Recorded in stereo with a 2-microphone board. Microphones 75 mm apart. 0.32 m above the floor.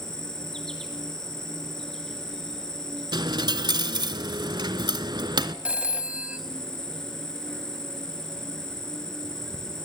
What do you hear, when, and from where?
0.0 s an insect: 5° left (ahead or behind), 3.5 m
3.1 s a dropped coin: 75° right (ahead or behind), 1.0 m
5.7 s a phone ringing: 15° right (ahead or behind), 1.6 m